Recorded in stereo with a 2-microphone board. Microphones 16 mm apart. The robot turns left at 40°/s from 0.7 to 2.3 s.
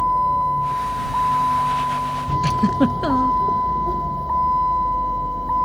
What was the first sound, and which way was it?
A vehicle, 15° right.